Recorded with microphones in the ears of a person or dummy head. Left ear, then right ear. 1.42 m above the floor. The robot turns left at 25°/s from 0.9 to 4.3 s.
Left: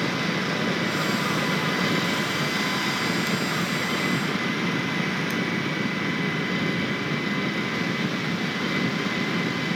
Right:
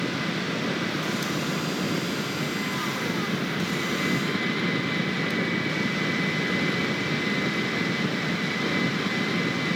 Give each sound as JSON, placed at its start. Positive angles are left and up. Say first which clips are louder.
{"t": 0.0, "sound": "an engine running", "louder": "left 3 dB", "azimuth_deg": 90}